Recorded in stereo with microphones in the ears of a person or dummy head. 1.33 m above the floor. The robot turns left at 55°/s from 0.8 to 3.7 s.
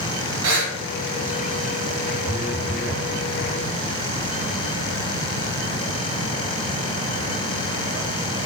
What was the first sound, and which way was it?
Breathing, 65° right (ahead or behind).